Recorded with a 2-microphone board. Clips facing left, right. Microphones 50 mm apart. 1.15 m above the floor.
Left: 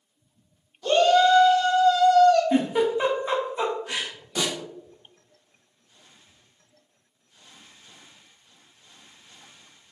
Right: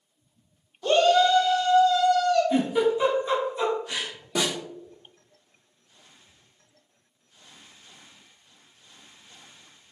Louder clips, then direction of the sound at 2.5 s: Even; 25° left (ahead or behind).